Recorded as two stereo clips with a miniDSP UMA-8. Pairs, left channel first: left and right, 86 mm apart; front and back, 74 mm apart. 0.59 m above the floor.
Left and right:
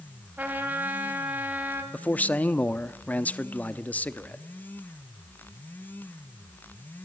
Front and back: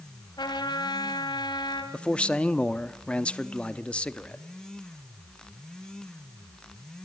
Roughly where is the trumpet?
Ahead.